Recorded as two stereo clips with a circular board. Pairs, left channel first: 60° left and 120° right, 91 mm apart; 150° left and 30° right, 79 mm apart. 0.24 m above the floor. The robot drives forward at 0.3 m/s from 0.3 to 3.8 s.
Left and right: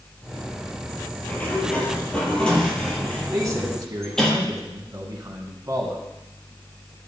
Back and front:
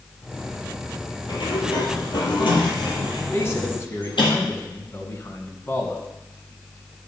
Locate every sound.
1.3 s a sliding door: 135° left, 2.5 m; by 4.3 s 145° left, 3 m
3.3 s a man speaking: 160° right, 2 m